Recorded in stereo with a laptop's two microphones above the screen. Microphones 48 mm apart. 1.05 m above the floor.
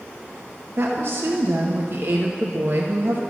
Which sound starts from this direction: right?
A woman speaking, at 0.8 s.